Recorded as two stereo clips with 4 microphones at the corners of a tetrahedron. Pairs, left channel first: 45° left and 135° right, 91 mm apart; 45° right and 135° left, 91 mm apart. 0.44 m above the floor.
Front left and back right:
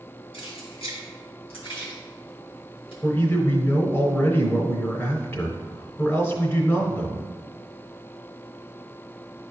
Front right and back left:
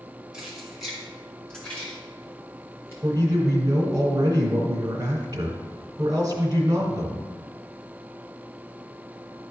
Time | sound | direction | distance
0.3 | keys jangling | 55° left | 3 m
3.0 | a man speaking | 105° left | 2.5 m